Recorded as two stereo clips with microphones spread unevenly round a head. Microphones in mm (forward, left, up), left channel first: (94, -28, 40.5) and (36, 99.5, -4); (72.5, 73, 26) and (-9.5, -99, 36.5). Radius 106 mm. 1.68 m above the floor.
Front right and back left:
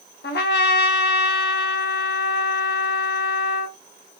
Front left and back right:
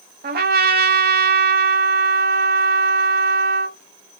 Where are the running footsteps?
No running footsteps in this recording.